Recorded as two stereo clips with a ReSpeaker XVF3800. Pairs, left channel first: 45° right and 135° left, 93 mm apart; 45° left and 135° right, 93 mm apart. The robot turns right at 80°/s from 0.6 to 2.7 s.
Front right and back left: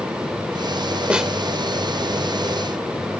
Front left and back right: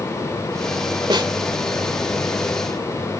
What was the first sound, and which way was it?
A snare drum, 150° right.